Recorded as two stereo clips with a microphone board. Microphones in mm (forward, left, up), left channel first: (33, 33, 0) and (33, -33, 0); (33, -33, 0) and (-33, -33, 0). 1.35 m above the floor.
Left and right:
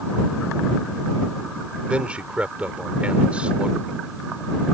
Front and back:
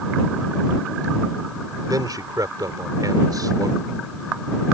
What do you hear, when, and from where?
1.9 s a man speaking: 160° right